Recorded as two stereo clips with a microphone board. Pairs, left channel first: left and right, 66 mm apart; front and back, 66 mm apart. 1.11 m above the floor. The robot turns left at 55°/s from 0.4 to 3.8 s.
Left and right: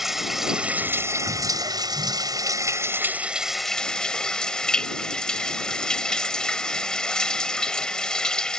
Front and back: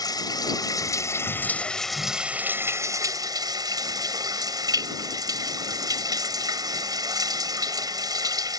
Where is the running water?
5° right; by 8.6 s 170° left.